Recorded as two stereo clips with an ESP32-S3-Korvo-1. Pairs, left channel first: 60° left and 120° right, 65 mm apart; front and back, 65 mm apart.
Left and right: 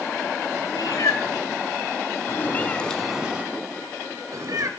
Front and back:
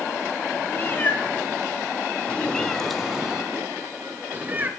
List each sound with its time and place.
0.7 s a cat meowing: 60° left, 1.3 m; by 4.7 s 120° right, 1.0 m